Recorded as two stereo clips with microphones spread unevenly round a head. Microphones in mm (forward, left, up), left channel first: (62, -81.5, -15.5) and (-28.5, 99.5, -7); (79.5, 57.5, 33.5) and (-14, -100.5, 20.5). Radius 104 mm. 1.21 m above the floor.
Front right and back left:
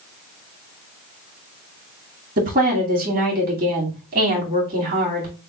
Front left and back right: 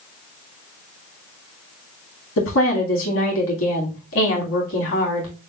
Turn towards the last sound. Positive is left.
turn(degrees=70)